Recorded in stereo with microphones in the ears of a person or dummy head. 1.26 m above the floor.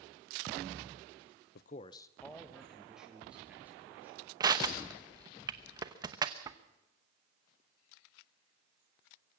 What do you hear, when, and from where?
1.6 s a man speaking: 65° left (ahead or behind), 0.7 m; by 4.3 s 15° right (ahead or behind), 4.5 m
4.4 s crushing: 20° right (ahead or behind), 1.0 m